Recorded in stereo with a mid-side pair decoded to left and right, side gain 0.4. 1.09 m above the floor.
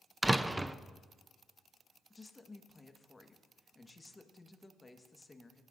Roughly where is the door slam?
Ahead.